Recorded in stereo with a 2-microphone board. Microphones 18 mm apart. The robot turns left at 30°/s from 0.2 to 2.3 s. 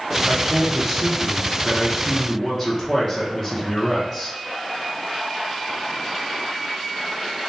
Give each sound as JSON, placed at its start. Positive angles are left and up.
{"t": 0.3, "sound": "a man speaking", "azimuth_deg": -135, "distance_m": 0.8}